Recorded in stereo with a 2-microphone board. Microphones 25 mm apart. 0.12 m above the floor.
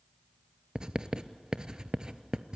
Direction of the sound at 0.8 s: 30° right (ahead or behind).